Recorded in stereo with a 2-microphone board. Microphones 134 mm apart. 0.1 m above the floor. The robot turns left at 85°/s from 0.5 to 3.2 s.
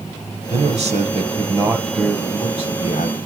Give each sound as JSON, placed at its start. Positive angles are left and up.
{"t": 0.5, "sound": "a man speaking", "azimuth_deg": -60, "distance_m": 2.5}